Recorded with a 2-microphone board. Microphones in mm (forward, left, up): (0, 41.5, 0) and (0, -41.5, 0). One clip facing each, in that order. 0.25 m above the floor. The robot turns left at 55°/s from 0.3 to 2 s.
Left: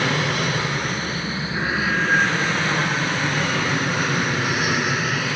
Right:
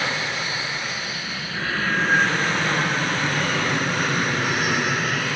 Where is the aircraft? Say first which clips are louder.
Left 4 dB; 95° left; by 5.4 s 5° left.